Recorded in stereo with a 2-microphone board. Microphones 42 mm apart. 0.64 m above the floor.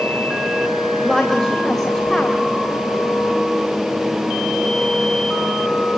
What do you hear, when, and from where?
1.0 s a woman speaking: 5° left (ahead or behind), 3.5 m